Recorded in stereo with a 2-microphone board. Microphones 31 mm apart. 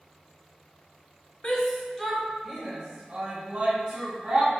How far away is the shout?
About 0.7 m.